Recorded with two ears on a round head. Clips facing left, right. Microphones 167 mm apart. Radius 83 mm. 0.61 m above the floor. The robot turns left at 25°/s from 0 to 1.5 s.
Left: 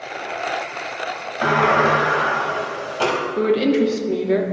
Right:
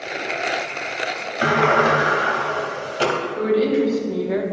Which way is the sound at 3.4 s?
35° left (ahead or behind).